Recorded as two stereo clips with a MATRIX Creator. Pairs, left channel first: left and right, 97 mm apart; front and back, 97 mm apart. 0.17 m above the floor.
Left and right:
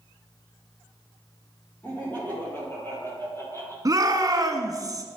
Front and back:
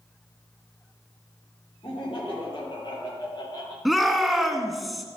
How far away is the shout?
About 1.3 m.